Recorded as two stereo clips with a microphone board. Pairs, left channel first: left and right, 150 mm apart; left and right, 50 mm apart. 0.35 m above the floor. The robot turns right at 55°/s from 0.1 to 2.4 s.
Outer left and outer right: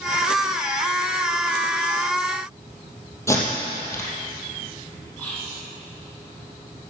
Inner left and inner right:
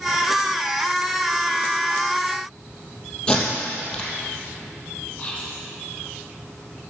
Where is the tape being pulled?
15° left (ahead or behind), 2.5 m.